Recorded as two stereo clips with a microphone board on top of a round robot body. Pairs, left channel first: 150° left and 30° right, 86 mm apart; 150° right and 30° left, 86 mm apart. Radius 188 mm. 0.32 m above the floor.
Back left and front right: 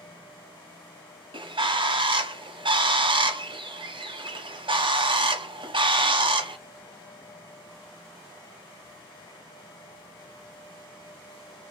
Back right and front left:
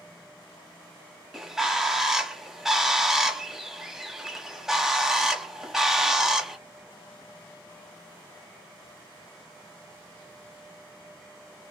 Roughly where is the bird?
Ahead right.